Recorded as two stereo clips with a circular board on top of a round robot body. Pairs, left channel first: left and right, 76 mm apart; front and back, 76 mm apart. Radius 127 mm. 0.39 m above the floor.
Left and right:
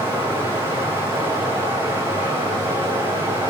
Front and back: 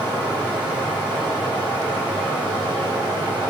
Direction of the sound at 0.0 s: 145° right.